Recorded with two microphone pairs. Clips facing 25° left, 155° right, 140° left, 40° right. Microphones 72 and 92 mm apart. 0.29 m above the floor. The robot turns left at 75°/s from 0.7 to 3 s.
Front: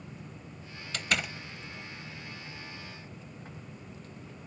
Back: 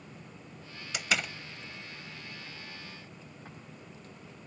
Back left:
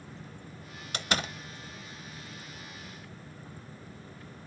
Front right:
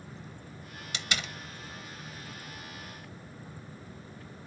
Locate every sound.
0.9 s a door slam: 135° left, 0.7 m; by 1.3 s 105° left, 0.7 m